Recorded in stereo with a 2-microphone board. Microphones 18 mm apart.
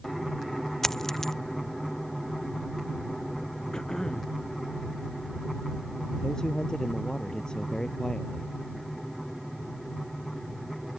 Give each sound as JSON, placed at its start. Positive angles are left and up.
{"t": 0.8, "sound": "a dropped coin", "side_deg": 20}
{"t": 3.7, "sound": "throat clearing", "side_deg": 40}
{"t": 6.2, "sound": "a man speaking", "side_deg": 45}